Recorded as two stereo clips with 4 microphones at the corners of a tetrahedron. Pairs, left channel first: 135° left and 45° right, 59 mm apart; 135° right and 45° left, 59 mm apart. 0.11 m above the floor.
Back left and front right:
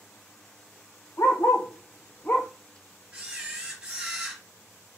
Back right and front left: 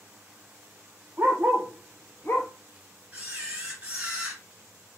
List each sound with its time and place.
1.2 s a dog barking: 90° left, 1.3 m; by 2.5 s 165° right, 1.0 m
3.1 s a camera shutter: 5° left, 1.8 m